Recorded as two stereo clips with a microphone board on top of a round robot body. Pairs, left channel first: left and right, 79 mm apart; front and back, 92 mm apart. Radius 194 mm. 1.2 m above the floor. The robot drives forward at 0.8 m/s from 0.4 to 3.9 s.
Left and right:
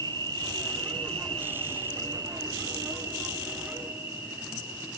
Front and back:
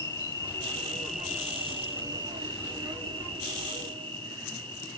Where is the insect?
55° right, 1.1 m; by 5.0 s 160° right, 2.5 m.